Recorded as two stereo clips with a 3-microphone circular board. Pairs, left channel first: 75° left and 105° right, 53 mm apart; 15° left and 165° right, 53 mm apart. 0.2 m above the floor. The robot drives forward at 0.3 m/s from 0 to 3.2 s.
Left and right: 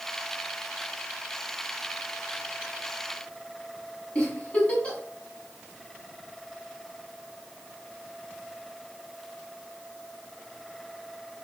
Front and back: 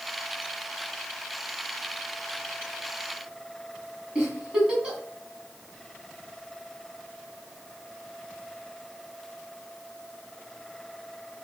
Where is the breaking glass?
No breaking glass in this recording.